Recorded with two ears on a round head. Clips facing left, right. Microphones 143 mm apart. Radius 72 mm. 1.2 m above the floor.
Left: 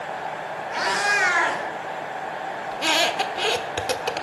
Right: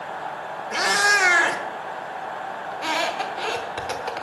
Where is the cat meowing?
55° right (ahead or behind), 1.4 m.